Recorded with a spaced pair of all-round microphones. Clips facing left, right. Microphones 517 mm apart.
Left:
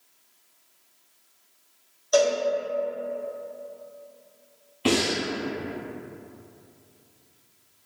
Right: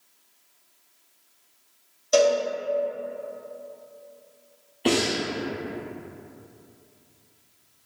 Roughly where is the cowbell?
Right.